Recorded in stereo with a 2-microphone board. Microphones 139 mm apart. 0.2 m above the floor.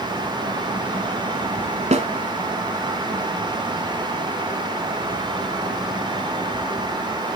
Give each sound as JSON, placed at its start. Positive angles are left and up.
{"t": 1.9, "sound": "a snare drum", "side_deg": -55, "distance_m": 1.1}